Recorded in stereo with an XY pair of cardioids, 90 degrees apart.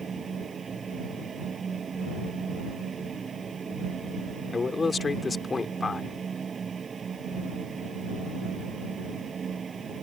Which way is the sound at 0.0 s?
50° right.